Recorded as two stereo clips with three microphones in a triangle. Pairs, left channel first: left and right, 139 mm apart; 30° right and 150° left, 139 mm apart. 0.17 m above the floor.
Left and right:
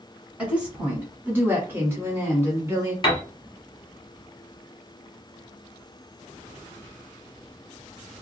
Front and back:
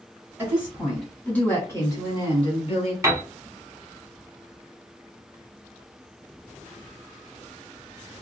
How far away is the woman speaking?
About 1.4 m.